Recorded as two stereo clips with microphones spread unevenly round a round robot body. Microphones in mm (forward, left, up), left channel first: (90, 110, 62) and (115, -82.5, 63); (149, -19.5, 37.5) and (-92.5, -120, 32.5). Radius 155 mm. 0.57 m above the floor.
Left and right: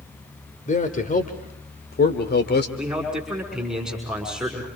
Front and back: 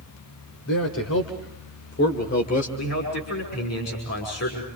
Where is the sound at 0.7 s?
55° left, 2.5 m; by 2.7 s 85° left, 2.5 m.